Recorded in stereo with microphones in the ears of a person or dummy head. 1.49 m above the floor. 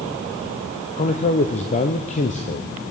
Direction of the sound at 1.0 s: 40° left (ahead or behind).